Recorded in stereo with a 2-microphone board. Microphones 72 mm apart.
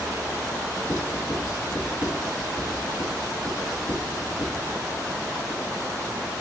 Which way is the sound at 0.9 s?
55° left (ahead or behind).